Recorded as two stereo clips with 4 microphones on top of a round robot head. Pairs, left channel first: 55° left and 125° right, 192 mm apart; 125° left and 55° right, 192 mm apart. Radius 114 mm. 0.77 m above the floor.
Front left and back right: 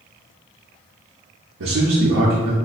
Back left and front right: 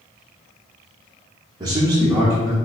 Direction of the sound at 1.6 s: 125° right.